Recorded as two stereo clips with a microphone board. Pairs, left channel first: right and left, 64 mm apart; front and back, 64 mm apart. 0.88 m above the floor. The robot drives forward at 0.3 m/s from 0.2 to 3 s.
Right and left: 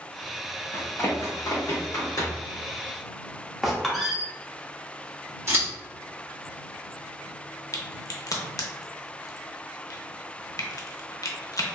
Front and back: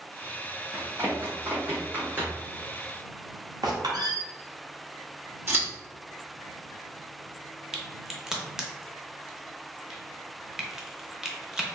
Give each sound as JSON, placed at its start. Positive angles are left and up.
{"t": 0.7, "sound": "running footsteps", "azimuth_deg": -130, "distance_m": 2.0}
{"t": 3.6, "sound": "a squeak", "azimuth_deg": 180, "distance_m": 0.9}
{"t": 5.5, "sound": "scissors", "azimuth_deg": 135, "distance_m": 1.7}
{"t": 7.7, "sound": "a crack", "azimuth_deg": -100, "distance_m": 0.7}